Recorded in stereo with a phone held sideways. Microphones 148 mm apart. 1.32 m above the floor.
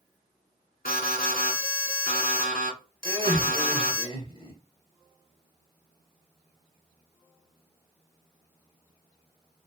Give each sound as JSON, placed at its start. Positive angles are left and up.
{"t": 0.8, "sound": "an alarm", "side_deg": 75, "distance_m": 1.5}
{"t": 3.0, "sound": "laughter", "side_deg": 35, "distance_m": 1.8}